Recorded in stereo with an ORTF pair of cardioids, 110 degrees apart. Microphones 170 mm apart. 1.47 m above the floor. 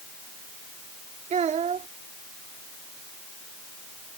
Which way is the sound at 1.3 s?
45° right.